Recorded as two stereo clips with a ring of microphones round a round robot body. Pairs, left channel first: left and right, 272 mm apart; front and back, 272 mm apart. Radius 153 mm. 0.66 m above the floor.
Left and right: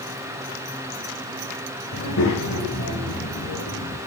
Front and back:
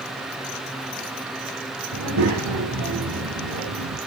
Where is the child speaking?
140° left, 2.5 m; by 4.0 s 150° left, 5 m.